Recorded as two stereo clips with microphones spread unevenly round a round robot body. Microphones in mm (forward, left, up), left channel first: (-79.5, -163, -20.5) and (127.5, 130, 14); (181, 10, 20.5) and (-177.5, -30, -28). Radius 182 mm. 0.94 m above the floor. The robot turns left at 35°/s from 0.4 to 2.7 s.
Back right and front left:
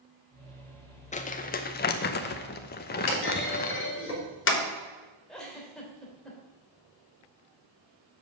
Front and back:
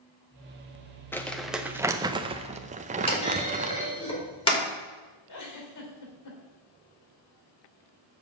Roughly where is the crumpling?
Right.